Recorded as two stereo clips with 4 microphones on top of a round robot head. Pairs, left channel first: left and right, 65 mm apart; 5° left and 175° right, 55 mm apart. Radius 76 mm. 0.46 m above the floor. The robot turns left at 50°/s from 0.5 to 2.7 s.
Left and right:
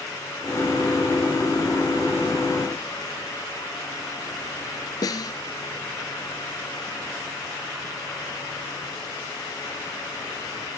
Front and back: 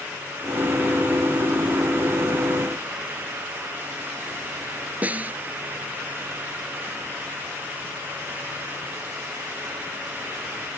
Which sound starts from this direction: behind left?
A snare drum, at 5.0 s.